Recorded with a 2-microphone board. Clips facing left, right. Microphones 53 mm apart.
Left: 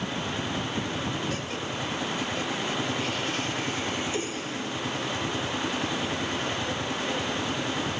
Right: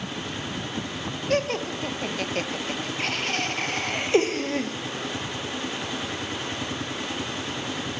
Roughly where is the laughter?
Right.